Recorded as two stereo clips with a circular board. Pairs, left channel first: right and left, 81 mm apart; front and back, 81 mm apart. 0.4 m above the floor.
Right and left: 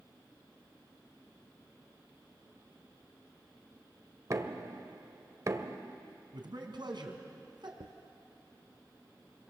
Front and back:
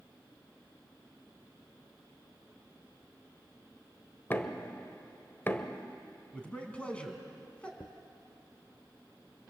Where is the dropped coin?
75° left, 0.6 m.